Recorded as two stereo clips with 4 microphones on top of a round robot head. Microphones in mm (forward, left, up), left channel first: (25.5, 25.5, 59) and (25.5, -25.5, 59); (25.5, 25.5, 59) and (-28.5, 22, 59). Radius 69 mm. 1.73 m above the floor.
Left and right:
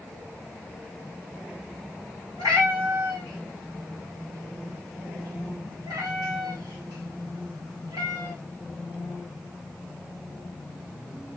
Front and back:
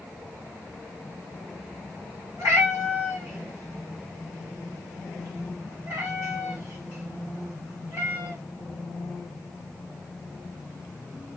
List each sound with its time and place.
2.4 s a cat meowing: 120° right, 1.3 m